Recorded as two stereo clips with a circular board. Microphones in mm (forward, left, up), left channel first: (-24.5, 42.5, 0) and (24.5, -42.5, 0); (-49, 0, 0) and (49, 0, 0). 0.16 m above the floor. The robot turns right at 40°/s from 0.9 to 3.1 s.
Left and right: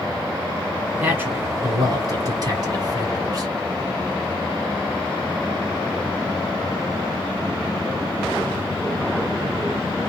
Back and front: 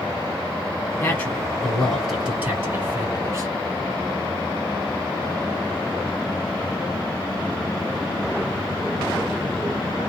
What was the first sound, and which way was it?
A man speaking, 125° right.